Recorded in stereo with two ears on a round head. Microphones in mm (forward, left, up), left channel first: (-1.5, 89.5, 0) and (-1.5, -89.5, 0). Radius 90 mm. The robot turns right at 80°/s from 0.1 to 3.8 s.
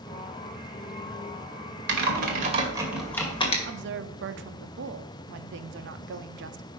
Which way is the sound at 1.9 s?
55° right (ahead or behind).